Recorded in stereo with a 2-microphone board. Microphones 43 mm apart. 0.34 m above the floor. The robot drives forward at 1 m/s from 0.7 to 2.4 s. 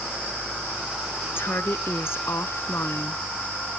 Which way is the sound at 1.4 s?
60° left (ahead or behind).